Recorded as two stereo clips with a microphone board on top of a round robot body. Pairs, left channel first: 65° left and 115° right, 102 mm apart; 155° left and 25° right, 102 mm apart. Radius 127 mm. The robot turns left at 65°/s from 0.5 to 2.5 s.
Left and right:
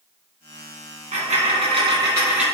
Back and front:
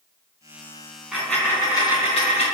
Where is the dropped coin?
105° right, 3 m; by 2.5 s 165° left, 3 m.